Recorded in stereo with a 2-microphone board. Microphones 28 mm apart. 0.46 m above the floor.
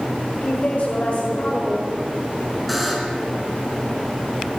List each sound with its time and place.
0.4 s a woman speaking: 55° left (ahead or behind), 1.9 m
2.7 s a buzzer: 5° right (ahead or behind), 2.0 m